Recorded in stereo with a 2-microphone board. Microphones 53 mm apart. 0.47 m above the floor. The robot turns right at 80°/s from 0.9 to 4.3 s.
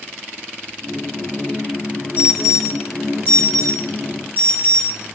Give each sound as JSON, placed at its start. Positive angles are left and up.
{"t": 2.2, "sound": "an alarm", "side_deg": -30, "distance_m": 2.5}